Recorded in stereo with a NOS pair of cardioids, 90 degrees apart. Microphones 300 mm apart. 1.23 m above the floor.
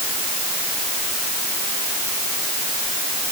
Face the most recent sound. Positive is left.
No sound to turn to.